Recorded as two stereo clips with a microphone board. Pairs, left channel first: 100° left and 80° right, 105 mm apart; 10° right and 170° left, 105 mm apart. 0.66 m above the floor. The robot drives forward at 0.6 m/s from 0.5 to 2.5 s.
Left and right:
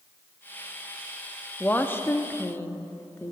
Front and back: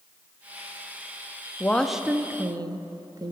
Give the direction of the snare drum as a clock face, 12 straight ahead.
I don't hear a snare drum.